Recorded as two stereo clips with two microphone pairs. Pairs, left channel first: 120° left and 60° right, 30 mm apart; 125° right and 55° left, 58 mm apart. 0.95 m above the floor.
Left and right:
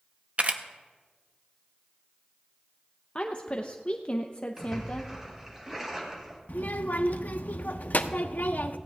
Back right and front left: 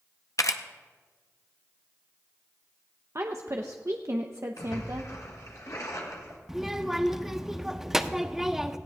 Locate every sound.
0.4 s a camera shutter: 100° right, 0.7 m
3.1 s a woman speaking: 70° left, 0.6 m
4.6 s a splash: 135° right, 2.5 m
6.5 s a child speaking: 140° left, 0.7 m